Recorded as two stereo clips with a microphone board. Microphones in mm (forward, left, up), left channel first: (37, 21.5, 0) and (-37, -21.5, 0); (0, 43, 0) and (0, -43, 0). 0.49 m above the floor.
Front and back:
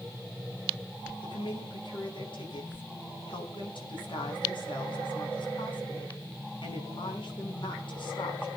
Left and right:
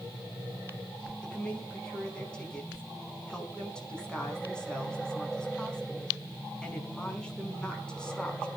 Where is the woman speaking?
10° left, 5 m.